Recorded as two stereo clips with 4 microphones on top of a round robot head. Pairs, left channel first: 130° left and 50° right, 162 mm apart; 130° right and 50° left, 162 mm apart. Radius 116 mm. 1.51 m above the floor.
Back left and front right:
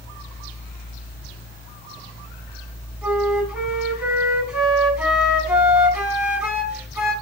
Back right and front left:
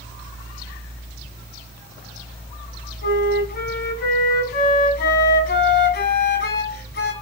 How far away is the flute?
About 6 m.